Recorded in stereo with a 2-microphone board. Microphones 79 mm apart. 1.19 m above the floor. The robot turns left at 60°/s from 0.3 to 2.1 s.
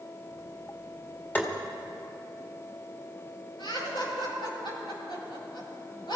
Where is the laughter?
85° left, 7 m.